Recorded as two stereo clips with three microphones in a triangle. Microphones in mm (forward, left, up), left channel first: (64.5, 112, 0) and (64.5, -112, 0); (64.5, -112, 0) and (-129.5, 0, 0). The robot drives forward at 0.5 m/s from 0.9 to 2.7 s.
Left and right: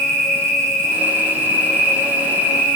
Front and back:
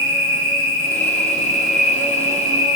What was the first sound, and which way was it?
An insect, 25° left.